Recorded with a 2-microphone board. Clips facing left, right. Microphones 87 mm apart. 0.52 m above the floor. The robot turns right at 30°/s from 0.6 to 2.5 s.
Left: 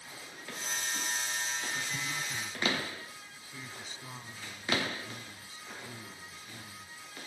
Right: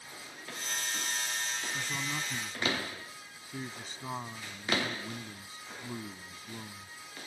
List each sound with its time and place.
1.7 s a man speaking: 65° right (ahead or behind); by 7.0 s 45° right (ahead or behind)